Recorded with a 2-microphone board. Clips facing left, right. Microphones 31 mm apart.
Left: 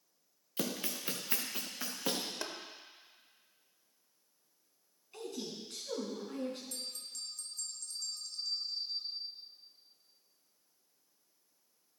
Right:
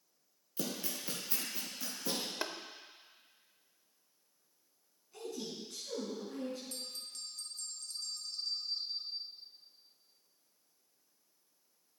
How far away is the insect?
I don't hear an insect.